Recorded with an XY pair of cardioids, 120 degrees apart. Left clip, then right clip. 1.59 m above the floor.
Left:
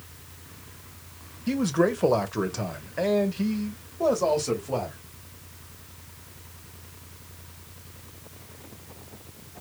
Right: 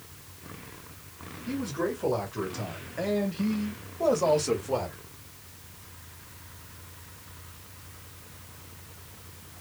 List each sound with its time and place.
1.5 s a man speaking: 65° left, 1.4 m; by 5.0 s 5° right, 1.8 m